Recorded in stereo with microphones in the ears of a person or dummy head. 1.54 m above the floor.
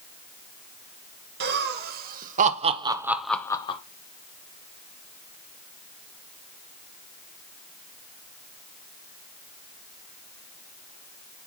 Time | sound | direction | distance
1.4 | laughter | 60° right (ahead or behind) | 2 m